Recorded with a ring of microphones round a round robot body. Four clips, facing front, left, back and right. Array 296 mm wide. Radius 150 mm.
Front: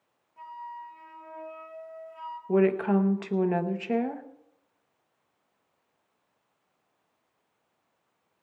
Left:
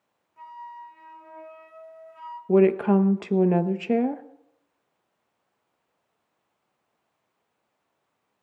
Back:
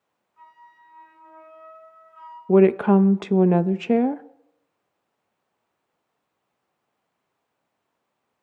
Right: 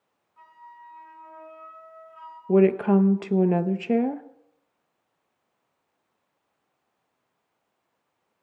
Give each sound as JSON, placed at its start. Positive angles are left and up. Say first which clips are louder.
{"t": 0.4, "sound": "a flute", "louder": "left 7 dB, front 10 dB", "azimuth_deg": 40, "distance_m": 3.0}
{"t": 2.5, "sound": "a woman speaking", "louder": "even, back 8 dB", "azimuth_deg": 180, "distance_m": 0.8}